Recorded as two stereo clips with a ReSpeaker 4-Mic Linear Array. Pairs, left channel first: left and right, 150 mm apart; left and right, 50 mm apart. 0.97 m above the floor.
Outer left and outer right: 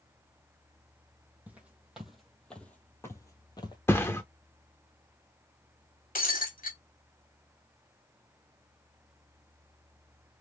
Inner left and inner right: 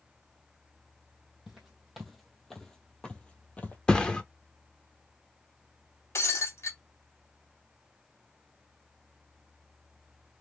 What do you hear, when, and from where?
1.5 s footsteps: 10° right (ahead or behind), 1.4 m; by 3.8 s 30° left (ahead or behind), 1.1 m
3.9 s a thud: 15° left (ahead or behind), 0.6 m
6.2 s breaking glass: 70° left (ahead or behind), 1.4 m